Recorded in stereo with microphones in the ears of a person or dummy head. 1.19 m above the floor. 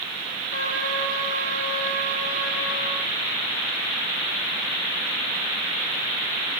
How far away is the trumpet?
About 3 m.